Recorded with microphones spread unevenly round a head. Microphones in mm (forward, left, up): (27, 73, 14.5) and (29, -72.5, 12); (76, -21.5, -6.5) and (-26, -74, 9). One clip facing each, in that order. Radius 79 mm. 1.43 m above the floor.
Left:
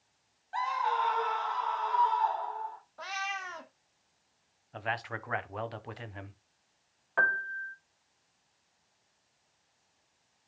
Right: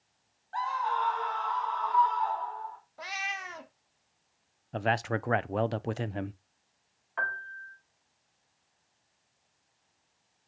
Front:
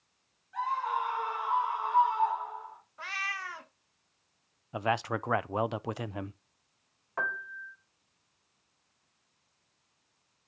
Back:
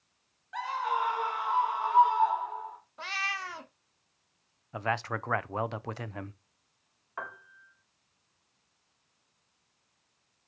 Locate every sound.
0.5 s a scream: 165° left, 1.2 m
3.0 s a cat meowing: 160° right, 0.6 m
4.7 s a man speaking: 50° right, 0.6 m
7.2 s a piano: 85° left, 1.2 m